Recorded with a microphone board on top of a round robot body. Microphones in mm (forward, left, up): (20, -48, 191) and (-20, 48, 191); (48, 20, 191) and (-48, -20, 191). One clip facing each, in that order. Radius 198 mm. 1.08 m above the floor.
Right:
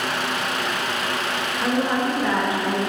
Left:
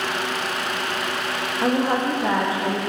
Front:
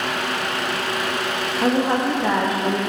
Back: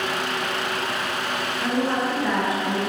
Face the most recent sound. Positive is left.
turn(degrees=60)